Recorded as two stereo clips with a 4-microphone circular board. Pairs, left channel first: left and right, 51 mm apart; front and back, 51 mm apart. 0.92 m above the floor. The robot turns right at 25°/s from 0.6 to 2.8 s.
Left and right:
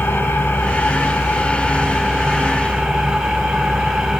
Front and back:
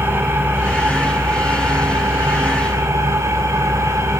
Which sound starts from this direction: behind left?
An engine running, at 0.0 s.